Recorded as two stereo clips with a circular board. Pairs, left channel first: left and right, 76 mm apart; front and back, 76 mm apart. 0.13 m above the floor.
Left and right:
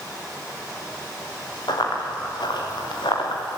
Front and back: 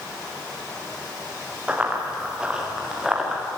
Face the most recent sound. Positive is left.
turn(degrees=95)